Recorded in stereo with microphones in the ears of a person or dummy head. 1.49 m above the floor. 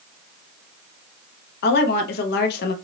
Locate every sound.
1.6 s a woman speaking: 55° left (ahead or behind), 0.8 m